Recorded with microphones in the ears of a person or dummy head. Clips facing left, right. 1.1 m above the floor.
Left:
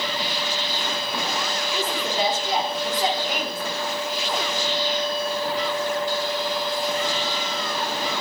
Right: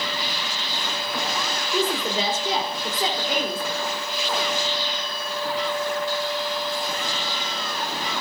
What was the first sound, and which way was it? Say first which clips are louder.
A woman speaking: right 3 dB; 65° right (ahead or behind).